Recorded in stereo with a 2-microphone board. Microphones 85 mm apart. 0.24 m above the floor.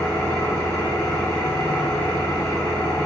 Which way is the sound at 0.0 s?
35° left (ahead or behind).